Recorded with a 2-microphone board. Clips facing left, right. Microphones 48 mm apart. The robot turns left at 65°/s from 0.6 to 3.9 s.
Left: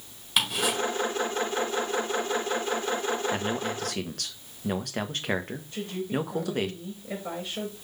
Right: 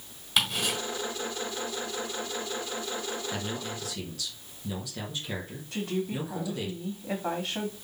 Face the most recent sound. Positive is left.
turn(degrees=-80)